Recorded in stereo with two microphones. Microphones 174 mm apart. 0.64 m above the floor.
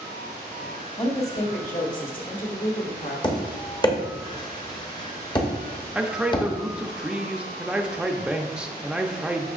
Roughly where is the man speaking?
Centre.